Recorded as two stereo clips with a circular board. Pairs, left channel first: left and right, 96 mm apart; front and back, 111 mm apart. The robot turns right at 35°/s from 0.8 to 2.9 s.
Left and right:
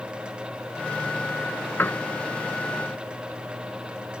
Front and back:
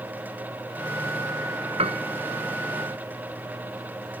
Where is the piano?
155° left; by 2.1 s 170° left.